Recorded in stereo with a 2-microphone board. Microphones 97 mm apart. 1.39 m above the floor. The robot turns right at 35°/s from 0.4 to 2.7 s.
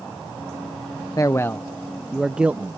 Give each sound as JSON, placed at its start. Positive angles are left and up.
{"t": 1.2, "sound": "a man speaking", "azimuth_deg": 145}